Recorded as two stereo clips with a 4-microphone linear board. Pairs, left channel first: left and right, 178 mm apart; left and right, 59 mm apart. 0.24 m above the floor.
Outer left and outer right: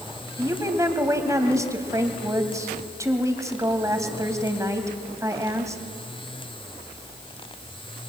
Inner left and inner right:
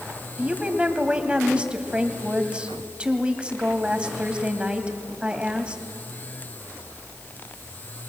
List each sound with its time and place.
0.4 s a woman speaking: 15° right (ahead or behind), 1.7 m